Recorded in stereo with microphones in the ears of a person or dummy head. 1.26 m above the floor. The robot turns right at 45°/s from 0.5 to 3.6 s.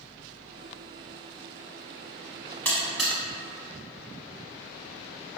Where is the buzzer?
10° left (ahead or behind), 1.0 m; by 3.1 s 5° right (ahead or behind), 1.0 m.